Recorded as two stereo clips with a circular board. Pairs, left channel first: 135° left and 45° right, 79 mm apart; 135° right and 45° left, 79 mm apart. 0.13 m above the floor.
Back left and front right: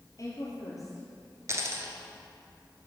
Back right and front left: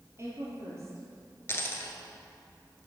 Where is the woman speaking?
95° left, 3 m.